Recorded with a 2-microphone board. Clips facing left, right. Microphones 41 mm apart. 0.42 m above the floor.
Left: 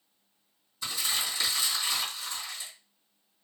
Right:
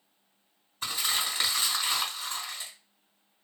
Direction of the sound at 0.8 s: 45° right (ahead or behind).